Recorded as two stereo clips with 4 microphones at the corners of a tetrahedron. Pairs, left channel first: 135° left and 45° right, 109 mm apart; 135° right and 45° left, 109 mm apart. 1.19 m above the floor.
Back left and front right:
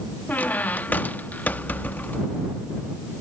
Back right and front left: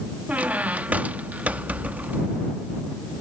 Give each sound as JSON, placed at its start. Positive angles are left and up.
{"t": 0.3, "sound": "a squeak", "azimuth_deg": 90}